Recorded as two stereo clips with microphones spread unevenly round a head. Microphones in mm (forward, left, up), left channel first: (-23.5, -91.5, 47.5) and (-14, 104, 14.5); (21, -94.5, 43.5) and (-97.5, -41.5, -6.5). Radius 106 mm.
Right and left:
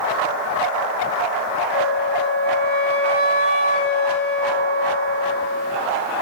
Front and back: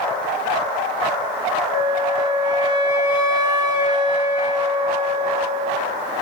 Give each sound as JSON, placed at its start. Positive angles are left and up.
{"t": 1.7, "sound": "a flute", "azimuth_deg": -50, "distance_m": 5.5}